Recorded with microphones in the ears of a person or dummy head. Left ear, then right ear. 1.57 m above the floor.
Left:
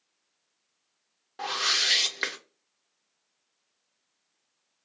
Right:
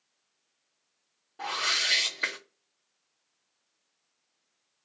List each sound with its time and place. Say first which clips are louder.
1.4 s a whoosh: left 2 dB; 50° left (ahead or behind), 1.0 m